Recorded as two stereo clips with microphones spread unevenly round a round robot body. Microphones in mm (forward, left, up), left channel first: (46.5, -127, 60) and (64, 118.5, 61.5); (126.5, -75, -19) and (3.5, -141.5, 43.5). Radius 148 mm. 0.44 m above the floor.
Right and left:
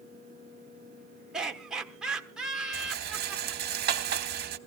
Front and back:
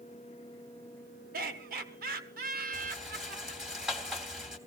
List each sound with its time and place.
1.3 s laughter: 170° left, 1.3 m
2.7 s a rattle: 90° left, 1.2 m